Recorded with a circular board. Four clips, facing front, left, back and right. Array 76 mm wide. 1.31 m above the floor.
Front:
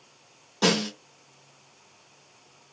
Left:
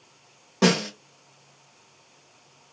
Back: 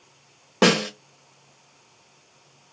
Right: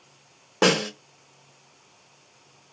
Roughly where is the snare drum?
Behind.